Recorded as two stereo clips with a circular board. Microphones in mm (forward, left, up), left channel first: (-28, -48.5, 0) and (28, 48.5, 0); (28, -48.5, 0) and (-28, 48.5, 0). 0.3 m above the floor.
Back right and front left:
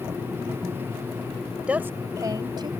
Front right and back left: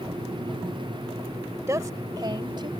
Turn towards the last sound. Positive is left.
turn(degrees=90)